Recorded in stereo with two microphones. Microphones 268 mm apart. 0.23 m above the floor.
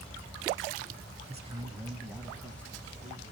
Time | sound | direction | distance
1.3 | a man speaking | 25° right (ahead or behind) | 1.0 m